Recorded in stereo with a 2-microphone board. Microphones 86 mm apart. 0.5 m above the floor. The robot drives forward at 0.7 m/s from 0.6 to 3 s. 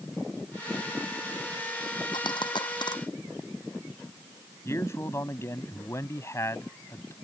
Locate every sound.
2.1 s a dropped coin: 65° left (ahead or behind); by 3.0 s 60° left (ahead or behind)
4.7 s a man speaking: 35° left (ahead or behind)